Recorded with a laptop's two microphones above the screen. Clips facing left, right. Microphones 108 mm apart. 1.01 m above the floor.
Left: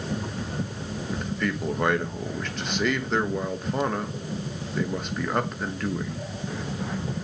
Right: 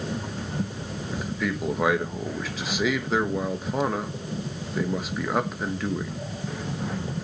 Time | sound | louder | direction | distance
1.1 | a man speaking | even | 5° right (ahead or behind) | 1.4 m